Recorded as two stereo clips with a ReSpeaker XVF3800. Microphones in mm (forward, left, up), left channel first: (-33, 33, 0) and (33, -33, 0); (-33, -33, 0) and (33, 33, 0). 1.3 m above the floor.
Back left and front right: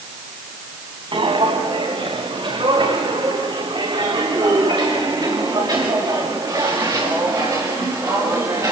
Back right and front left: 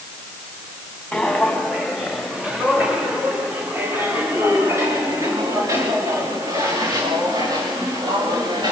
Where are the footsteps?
50° right, 5 m; by 8.7 s 5° left, 8 m.